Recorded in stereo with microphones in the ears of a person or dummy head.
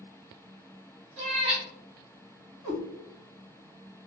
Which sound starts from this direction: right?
A cat meowing, at 1.2 s.